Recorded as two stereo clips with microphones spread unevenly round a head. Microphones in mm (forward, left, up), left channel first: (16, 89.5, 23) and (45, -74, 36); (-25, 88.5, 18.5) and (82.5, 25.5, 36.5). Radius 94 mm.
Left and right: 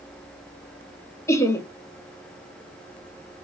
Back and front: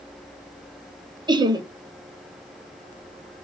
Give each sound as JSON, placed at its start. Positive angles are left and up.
{"t": 1.3, "sound": "laughter", "azimuth_deg": 25, "distance_m": 1.1}